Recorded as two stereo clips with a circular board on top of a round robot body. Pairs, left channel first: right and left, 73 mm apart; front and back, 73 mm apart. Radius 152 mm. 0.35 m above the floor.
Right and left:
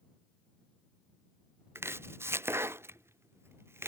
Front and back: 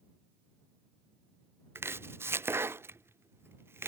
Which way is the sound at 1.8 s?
135° left.